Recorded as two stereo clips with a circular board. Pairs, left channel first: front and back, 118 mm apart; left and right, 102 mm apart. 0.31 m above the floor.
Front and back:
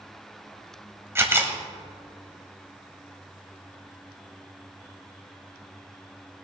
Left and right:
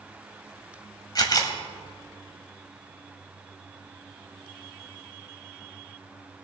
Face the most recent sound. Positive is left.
turn(degrees=120)